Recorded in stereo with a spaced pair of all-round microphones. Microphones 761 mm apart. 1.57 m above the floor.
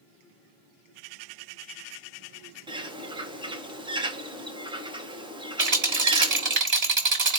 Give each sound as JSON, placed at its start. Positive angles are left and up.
{"t": 2.7, "sound": "a bird", "side_deg": -5, "distance_m": 1.0}
{"t": 5.6, "sound": "a rattle", "side_deg": -50, "distance_m": 1.7}